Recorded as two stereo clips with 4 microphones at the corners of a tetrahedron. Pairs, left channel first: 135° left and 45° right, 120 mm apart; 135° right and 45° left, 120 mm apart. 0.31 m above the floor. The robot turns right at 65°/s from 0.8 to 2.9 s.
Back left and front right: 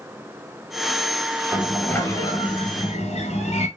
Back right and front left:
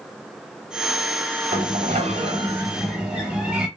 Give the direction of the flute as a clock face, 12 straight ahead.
I don't hear a flute.